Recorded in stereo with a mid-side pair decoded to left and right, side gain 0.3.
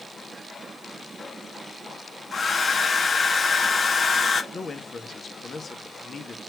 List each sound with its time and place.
2.3 s a hair dryer: 55° left, 1.6 m
4.5 s a man speaking: 50° left, 1.8 m